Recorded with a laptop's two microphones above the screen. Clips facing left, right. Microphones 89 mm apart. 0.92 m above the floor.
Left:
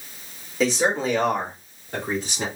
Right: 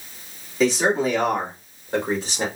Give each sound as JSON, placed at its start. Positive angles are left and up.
{"t": 0.6, "sound": "a man speaking", "side_deg": 0, "distance_m": 2.5}